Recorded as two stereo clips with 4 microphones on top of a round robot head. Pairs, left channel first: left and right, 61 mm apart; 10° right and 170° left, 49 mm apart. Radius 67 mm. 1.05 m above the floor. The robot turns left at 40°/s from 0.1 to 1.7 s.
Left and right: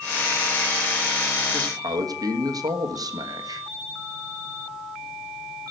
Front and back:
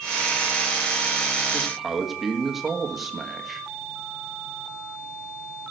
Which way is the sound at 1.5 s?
100° right.